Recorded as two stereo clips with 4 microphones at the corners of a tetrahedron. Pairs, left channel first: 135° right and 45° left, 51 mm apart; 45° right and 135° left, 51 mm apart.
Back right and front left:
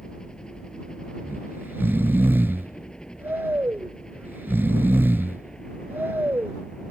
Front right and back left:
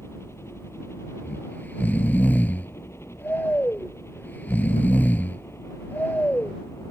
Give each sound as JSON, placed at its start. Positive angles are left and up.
{"t": 0.0, "sound": "a helicopter", "azimuth_deg": -60}
{"t": 1.2, "sound": "snoring", "azimuth_deg": 5}